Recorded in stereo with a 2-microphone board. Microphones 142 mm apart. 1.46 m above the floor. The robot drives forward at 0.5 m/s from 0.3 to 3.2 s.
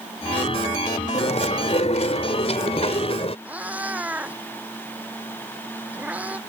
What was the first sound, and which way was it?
Chewing, 55° left (ahead or behind).